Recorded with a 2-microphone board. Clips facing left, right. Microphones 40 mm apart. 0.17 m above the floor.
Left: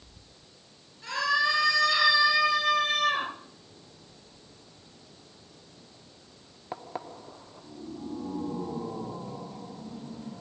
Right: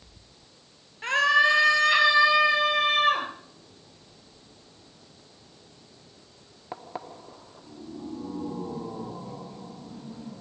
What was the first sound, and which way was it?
A scream, 55° right (ahead or behind).